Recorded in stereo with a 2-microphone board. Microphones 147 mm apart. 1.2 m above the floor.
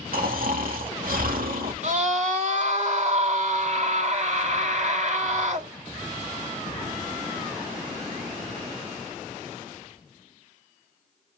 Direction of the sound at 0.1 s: 80° right.